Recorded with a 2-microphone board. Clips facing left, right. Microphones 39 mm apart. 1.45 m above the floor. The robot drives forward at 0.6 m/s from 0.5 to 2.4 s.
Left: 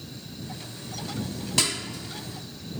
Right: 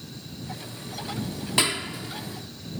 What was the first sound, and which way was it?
A clap, 25° right (ahead or behind).